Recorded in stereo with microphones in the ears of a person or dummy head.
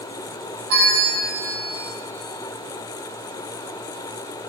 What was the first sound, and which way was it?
A bell, 55° right (ahead or behind).